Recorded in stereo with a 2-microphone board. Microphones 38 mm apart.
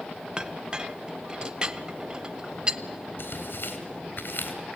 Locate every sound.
0.4 s a clink: 25° right (ahead or behind), 0.8 m
3.2 s tearing paper: 60° left (ahead or behind), 4 m